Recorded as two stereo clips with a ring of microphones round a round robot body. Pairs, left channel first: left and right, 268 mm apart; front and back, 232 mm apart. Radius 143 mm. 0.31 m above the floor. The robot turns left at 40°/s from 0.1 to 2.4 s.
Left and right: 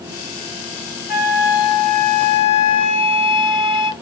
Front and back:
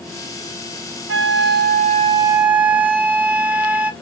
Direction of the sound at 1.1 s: 150° left.